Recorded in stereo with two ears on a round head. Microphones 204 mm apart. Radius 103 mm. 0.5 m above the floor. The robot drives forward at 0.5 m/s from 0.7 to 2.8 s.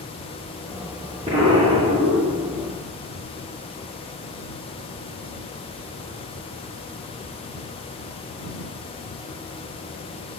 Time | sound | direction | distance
1.3 | an explosion | 25° right (ahead or behind) | 7.5 m